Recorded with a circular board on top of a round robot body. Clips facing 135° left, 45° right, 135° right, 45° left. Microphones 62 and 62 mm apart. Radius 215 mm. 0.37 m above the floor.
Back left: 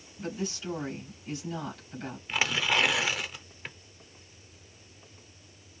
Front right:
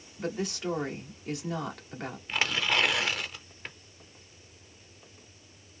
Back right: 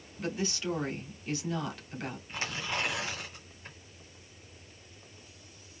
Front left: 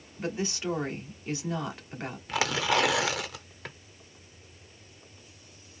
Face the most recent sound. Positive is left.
turn(degrees=50)